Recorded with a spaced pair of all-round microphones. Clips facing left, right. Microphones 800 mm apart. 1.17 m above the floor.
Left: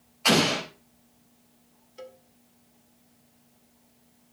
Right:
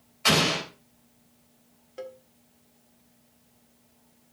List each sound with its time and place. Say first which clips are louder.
0.2 s an explosion: left 3 dB; 50° right (ahead or behind), 3.5 m
2.0 s a cowbell: right 5 dB; 75° right (ahead or behind), 1.7 m